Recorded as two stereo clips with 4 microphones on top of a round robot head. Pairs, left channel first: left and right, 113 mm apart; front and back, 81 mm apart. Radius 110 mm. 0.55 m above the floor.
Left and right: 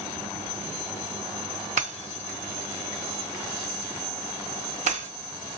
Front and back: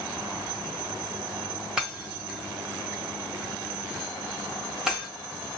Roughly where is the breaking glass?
Right.